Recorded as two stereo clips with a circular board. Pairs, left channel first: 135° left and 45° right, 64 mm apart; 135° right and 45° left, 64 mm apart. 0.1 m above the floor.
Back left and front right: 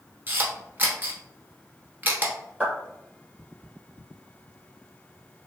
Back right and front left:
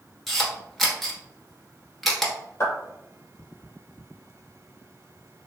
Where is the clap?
105° right, 1.8 m.